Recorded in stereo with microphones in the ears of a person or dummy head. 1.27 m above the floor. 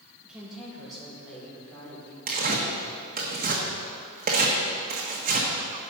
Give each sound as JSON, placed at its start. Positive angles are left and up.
{"t": 0.2, "sound": "a woman speaking", "side_deg": 0, "distance_m": 4.0}
{"t": 2.3, "sound": "tearing paper", "side_deg": -45, "distance_m": 1.5}